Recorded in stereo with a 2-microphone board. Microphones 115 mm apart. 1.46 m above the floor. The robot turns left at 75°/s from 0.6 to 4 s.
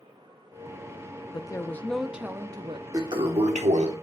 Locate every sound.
1.3 s a woman speaking: 50° left, 0.6 m; by 2.8 s 65° right, 0.6 m
2.9 s a toilet flushing: 30° right, 1.1 m; by 3.9 s 105° right, 1.1 m